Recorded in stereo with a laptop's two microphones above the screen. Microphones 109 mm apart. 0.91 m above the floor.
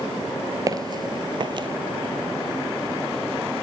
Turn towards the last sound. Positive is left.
turn(degrees=-45)  # may be behind; listen again after turning